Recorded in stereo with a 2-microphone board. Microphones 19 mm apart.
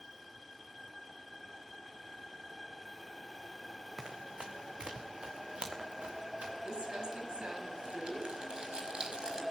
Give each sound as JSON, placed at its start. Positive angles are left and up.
{"t": 4.0, "sound": "running footsteps", "side_deg": -65, "distance_m": 2.5}
{"t": 6.7, "sound": "crumpling", "side_deg": -55, "distance_m": 5.5}